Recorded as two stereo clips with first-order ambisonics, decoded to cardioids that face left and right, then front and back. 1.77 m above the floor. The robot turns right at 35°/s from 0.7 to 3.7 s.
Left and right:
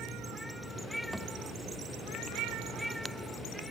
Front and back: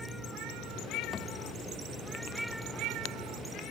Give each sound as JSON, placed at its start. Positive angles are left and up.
{"t": 1.1, "sound": "a thud", "azimuth_deg": -10, "distance_m": 1.1}